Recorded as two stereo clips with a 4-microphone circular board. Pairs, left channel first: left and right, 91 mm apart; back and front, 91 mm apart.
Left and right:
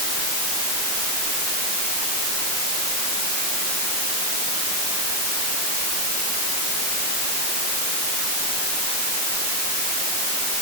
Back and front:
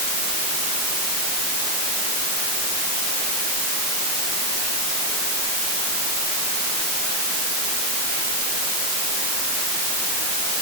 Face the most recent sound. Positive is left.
No sound to turn to.